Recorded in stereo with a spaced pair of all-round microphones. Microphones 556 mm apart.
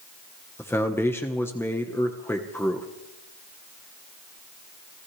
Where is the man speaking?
5° left (ahead or behind), 1.1 m.